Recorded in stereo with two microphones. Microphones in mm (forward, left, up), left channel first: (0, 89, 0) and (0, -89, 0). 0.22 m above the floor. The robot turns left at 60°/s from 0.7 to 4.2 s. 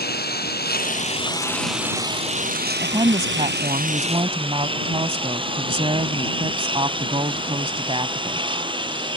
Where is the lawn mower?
60° left (ahead or behind); by 9.2 s 25° right (ahead or behind).